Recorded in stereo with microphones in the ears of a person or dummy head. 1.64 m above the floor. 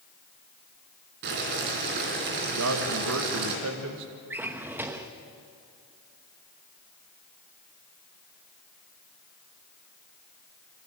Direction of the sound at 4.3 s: 10° right (ahead or behind).